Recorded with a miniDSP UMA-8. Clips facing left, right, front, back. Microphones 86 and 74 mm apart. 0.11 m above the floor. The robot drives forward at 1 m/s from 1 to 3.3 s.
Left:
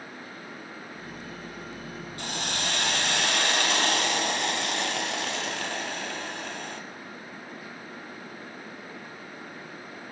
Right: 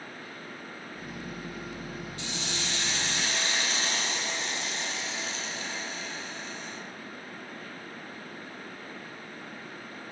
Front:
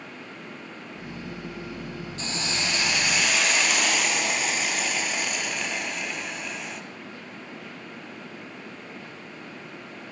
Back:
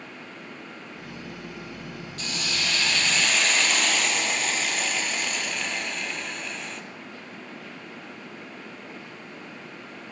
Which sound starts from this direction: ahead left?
A hiss, at 2.2 s.